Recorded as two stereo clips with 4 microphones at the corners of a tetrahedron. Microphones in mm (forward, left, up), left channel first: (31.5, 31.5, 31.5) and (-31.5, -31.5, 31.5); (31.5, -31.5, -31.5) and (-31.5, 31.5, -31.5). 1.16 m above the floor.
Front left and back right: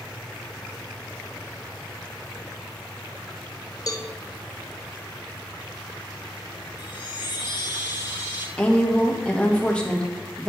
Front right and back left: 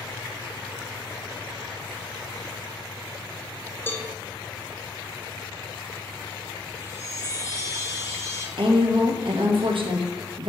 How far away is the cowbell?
About 0.6 m.